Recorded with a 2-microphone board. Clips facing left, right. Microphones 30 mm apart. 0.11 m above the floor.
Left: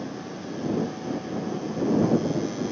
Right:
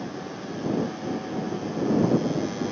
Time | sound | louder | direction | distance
0.0 | a motorcycle | even | 10° right (ahead or behind) | ?